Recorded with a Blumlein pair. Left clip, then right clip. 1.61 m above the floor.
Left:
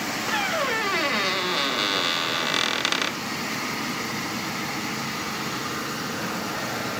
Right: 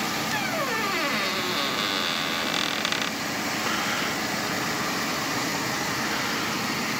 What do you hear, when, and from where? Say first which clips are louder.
0.3 s a squeak: left 5 dB; 10° left